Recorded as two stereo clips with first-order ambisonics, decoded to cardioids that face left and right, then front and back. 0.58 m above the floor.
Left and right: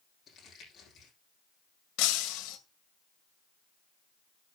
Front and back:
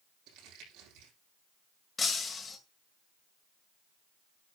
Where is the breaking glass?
75° left, 2.0 m.